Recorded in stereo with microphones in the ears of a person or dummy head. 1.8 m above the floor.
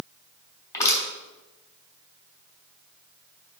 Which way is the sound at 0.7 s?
20° left (ahead or behind).